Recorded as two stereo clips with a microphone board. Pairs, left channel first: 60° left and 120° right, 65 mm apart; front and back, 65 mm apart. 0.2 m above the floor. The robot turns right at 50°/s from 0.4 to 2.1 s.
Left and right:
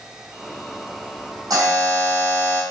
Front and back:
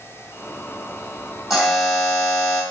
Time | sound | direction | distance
1.5 | a buzzer | 100° right | 3.5 m